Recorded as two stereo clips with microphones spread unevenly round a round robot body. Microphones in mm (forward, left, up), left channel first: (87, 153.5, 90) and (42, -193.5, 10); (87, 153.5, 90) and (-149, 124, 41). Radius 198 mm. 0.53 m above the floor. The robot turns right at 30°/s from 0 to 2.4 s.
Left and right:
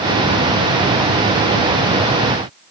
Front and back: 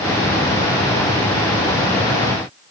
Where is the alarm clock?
I don't hear an alarm clock.